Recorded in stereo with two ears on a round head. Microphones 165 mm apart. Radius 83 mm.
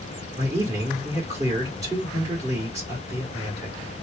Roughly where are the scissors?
No scissors in this recording.